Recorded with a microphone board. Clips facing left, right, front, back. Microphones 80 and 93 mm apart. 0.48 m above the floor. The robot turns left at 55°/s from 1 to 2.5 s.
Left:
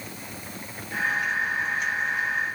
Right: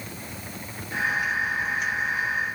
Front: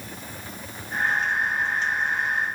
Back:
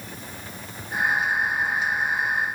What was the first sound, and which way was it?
Only background noise.